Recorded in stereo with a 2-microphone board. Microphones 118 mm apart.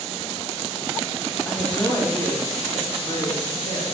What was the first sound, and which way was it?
A woman speaking, 20° left (ahead or behind).